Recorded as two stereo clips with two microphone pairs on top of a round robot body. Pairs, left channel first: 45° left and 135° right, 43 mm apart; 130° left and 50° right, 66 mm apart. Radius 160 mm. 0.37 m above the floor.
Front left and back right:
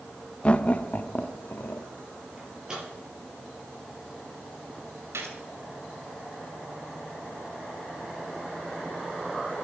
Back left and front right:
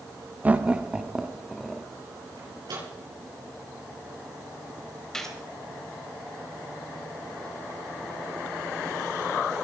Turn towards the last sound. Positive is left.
turn(degrees=-150)